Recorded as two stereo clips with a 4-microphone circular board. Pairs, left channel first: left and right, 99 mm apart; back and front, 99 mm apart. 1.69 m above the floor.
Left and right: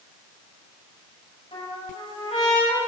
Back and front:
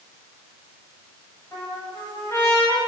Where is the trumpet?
115° left, 7.5 m.